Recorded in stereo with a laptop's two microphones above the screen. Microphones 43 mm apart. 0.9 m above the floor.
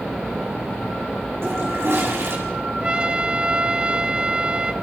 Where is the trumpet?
25° right (ahead or behind), 1.1 m.